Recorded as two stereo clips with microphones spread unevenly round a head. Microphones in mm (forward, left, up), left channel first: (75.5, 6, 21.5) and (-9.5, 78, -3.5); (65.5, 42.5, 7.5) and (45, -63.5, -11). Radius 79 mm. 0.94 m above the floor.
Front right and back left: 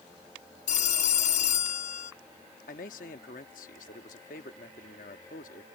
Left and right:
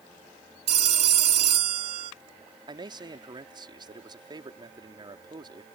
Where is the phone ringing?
80° right.